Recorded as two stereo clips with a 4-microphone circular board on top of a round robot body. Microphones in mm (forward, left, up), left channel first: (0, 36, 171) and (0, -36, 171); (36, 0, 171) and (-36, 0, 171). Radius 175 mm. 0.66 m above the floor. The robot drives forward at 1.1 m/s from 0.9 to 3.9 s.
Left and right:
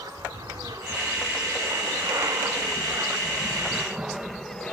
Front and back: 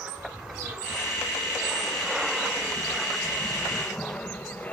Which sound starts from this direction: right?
An aircraft, at 0.0 s.